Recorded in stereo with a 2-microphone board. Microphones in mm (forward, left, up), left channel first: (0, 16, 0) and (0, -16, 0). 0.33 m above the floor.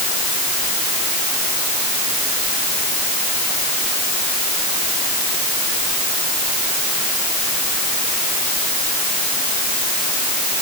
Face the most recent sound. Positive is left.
No sound to turn to.